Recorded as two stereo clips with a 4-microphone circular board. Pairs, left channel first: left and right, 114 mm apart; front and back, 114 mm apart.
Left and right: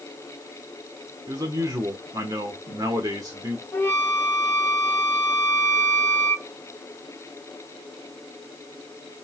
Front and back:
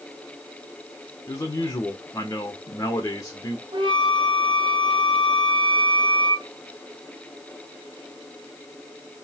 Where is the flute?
155° left, 1.1 m.